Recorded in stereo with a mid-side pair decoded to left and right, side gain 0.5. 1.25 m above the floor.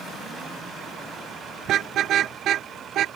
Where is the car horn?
60° right; by 3.1 s 65° right.